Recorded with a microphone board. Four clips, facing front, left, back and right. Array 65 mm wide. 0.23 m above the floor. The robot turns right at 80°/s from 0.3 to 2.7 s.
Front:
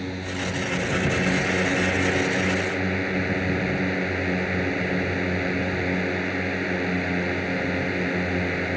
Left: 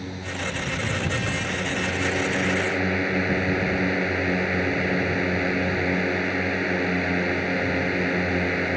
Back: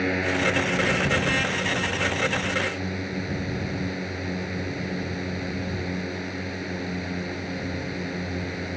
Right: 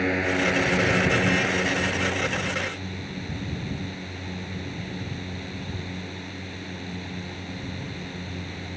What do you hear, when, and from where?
0.0 s a drone: 130° right; by 8.8 s 65° left